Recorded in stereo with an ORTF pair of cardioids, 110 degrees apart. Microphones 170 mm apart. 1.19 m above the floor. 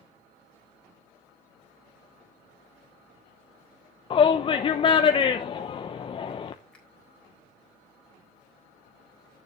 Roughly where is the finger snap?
Ahead.